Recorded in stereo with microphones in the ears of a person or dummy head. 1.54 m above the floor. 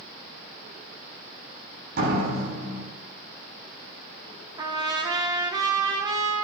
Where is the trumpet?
25° right (ahead or behind), 1.8 m.